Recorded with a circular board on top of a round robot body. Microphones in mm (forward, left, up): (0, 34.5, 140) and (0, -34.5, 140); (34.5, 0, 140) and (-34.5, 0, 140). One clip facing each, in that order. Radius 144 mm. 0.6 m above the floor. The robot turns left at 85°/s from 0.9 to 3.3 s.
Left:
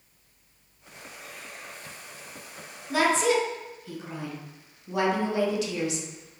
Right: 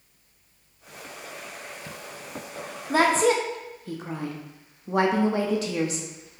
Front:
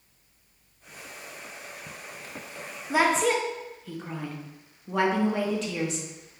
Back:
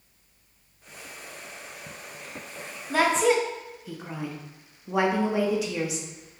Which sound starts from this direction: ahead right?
A woman speaking, at 2.9 s.